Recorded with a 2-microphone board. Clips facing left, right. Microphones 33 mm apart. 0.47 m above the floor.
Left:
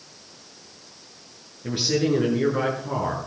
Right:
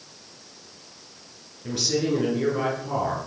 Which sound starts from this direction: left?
A man speaking, at 1.6 s.